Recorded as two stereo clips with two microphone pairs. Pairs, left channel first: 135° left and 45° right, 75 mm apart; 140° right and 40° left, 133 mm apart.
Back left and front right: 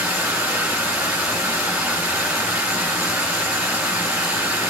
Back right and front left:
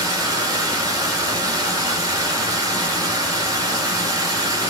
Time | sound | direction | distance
0.0 | running water | 10° left | 1.2 m